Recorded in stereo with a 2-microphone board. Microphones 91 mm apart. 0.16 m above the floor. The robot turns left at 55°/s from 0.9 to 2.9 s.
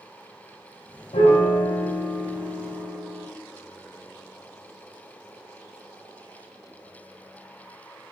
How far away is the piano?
About 3.5 m.